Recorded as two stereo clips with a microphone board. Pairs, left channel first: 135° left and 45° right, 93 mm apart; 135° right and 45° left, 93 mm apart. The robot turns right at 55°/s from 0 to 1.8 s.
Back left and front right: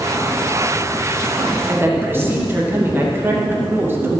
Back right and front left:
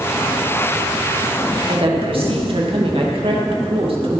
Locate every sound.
1.7 s a woman speaking: 15° left, 2 m; by 4.2 s 20° left, 2 m